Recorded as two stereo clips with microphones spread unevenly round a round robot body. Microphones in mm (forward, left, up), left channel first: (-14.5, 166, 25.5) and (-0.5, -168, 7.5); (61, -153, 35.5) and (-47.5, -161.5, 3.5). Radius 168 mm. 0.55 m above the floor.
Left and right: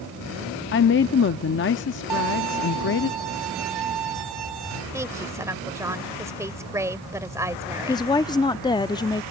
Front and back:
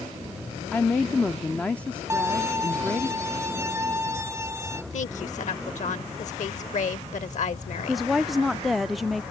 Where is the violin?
110° right.